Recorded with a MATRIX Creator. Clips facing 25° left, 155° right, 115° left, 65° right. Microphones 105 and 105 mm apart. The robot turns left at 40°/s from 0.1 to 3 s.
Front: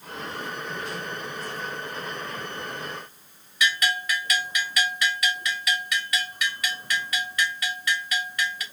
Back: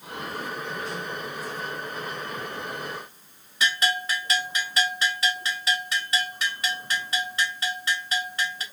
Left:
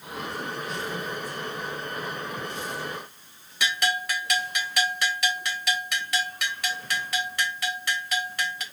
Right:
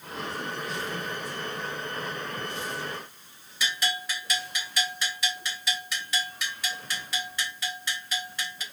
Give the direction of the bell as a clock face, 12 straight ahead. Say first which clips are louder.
Even, left 5 dB; 7 o'clock.